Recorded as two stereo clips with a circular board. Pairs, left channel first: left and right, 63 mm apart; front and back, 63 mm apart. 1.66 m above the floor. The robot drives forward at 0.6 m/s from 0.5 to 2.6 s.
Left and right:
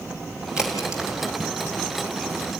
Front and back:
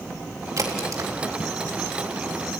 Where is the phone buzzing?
No phone buzzing in this recording.